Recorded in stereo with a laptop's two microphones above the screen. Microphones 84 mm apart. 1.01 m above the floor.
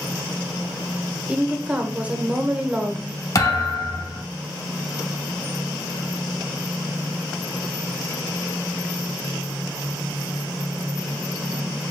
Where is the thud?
40° left (ahead or behind), 0.8 m.